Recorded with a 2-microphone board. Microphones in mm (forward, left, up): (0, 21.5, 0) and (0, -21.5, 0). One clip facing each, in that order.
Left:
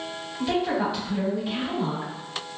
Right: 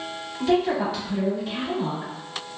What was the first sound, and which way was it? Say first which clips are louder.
A woman speaking: right 3 dB; 5° left (ahead or behind).